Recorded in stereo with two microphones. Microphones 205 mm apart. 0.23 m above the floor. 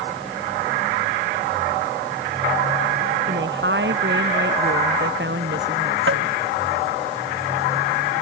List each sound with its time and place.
3.3 s a woman speaking: 65° right (ahead or behind)
6.1 s tapping: 85° right